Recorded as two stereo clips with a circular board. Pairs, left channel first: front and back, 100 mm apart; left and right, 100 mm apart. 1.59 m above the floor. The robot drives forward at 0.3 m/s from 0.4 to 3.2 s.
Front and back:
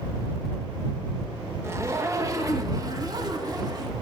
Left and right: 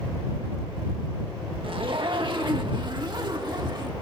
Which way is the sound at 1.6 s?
120° right.